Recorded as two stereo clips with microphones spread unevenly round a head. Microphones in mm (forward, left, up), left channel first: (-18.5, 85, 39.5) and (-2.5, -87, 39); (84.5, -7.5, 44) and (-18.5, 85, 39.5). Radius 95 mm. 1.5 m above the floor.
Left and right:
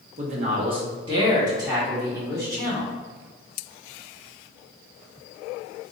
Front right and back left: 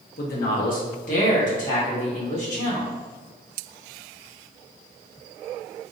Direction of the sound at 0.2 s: 35° right.